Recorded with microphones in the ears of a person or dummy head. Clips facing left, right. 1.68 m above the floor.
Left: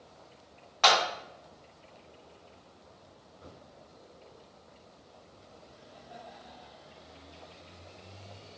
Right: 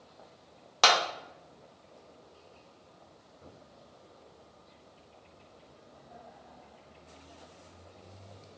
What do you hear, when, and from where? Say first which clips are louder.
0.8 s a clap: left 1 dB; 55° right (ahead or behind), 0.5 m